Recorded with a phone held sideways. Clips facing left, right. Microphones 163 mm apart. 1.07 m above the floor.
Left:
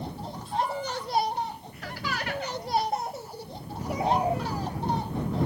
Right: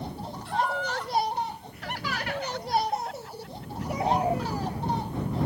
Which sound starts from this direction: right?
Laughter, at 0.5 s.